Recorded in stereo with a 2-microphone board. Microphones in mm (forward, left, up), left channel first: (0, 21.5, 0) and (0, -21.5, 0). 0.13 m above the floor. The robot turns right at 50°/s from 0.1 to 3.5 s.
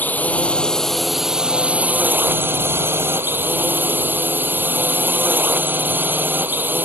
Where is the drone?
130° left; by 6.9 s 60° right.